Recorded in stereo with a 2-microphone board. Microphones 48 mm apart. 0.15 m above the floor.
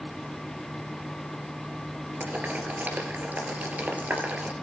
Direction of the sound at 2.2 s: 40° right (ahead or behind).